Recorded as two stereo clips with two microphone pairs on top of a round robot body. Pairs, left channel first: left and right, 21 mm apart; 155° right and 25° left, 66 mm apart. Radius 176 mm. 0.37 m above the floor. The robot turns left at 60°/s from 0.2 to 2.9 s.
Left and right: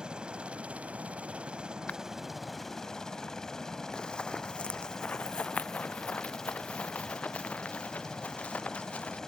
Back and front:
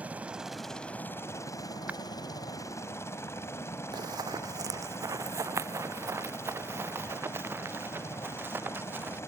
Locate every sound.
0.0 s a helicopter: 40° right; by 9.3 s 160° left
1.9 s breaking glass: 95° left; by 2.0 s 90° left
3.9 s running footsteps: 40° left; by 9.2 s 90° left